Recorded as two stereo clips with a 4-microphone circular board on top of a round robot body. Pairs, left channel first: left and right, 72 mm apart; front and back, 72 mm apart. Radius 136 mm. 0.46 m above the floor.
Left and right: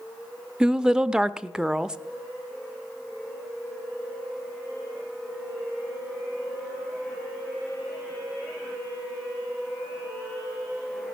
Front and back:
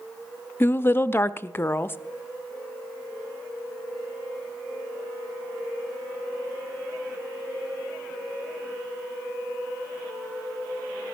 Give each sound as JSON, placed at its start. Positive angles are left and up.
{"t": 0.6, "sound": "a woman speaking", "azimuth_deg": -15, "distance_m": 0.7}